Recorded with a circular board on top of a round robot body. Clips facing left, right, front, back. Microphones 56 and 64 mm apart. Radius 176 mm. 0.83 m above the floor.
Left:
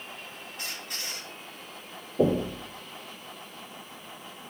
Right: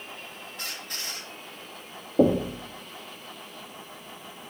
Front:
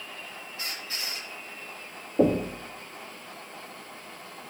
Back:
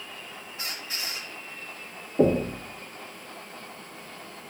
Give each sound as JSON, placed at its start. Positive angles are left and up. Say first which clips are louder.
{"t": 0.6, "sound": "a squeak", "louder": "right 1 dB, back 1 dB", "azimuth_deg": -110, "distance_m": 3.0}
{"t": 2.2, "sound": "knocking", "louder": "right 3 dB, back 1 dB", "azimuth_deg": -75, "distance_m": 1.7}